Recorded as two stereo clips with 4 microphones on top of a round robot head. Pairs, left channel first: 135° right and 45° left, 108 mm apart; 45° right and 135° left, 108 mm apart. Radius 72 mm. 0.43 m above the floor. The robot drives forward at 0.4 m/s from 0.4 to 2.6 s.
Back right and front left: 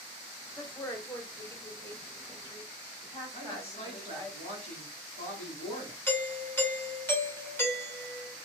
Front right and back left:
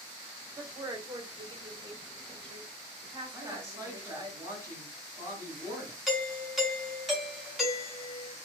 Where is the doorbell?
135° right, 1.3 m.